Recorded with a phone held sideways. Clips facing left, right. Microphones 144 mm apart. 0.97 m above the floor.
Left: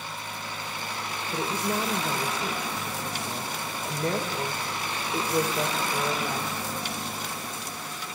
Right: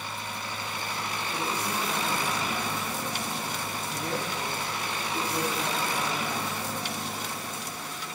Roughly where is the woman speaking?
Left.